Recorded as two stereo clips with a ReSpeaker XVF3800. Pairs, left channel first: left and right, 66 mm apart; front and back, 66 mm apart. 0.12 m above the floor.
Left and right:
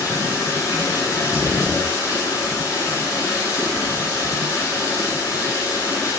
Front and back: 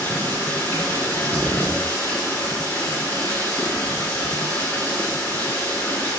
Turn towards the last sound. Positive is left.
turn(degrees=55)